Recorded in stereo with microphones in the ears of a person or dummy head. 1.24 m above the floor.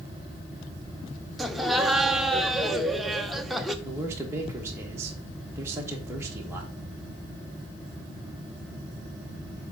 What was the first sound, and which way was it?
Laughter, centre (ahead or behind).